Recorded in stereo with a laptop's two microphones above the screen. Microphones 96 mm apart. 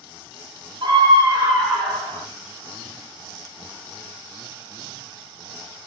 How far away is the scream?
About 0.7 m.